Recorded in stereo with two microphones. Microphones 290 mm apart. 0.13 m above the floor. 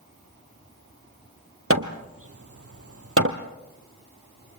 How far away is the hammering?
About 1.9 m.